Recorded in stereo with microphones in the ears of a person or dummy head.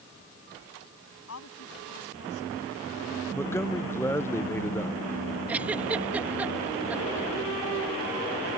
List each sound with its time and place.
1.3 s a woman speaking: 70° left (ahead or behind)
3.3 s a man speaking: 10° left (ahead or behind)
5.5 s a giggle: 10° right (ahead or behind)